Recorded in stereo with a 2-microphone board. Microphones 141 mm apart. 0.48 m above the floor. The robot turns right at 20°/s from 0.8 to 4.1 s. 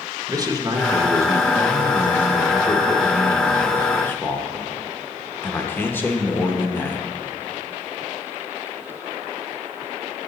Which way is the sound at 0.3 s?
45° right.